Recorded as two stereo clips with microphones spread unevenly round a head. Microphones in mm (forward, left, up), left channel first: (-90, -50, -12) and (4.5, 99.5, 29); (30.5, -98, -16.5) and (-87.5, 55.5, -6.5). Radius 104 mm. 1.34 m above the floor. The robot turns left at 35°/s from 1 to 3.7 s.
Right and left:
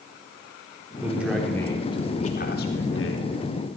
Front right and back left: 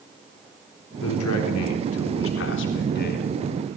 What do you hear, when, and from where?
1.0 s a man speaking: 20° right, 3.5 m; by 3.2 s 100° right, 3.5 m